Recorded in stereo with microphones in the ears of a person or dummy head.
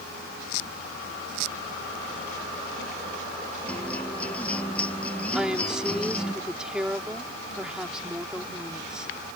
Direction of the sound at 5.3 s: 5° right (ahead or behind).